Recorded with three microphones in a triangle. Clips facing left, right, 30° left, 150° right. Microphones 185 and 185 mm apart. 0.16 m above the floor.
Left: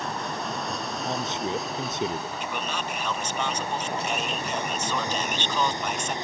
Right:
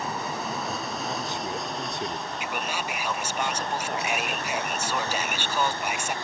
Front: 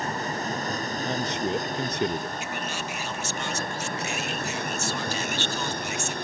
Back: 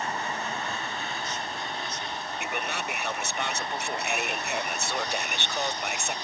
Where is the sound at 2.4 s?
170° right.